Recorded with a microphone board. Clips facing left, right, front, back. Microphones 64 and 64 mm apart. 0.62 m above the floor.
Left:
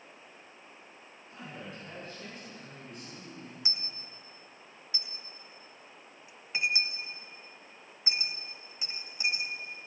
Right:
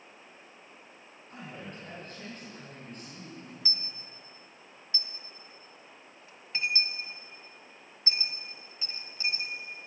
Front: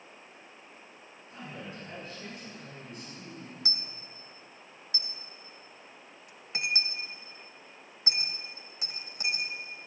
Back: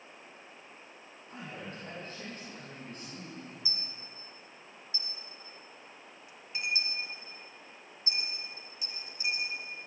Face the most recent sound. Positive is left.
turn(degrees=15)